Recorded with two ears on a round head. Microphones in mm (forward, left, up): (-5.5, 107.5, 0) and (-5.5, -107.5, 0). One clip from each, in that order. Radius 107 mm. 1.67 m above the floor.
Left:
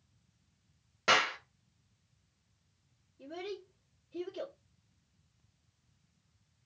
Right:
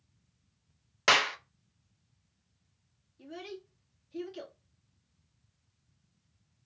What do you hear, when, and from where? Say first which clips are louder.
1.1 s a clap: right 3 dB; 45° right (ahead or behind), 0.7 m
3.2 s a child speaking: left 2 dB; 45° right (ahead or behind), 2 m